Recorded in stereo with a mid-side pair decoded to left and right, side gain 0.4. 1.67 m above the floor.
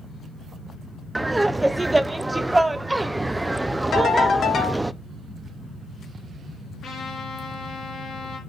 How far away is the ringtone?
About 3 m.